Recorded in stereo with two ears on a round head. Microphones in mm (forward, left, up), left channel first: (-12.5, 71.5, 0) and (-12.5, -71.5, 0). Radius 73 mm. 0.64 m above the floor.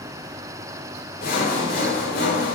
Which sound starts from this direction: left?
Sawing, at 1.2 s.